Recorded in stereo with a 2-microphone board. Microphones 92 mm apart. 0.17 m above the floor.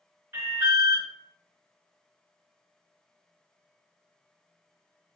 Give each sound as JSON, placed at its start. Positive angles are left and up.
{"t": 0.3, "sound": "an alarm", "side_deg": -30, "distance_m": 1.8}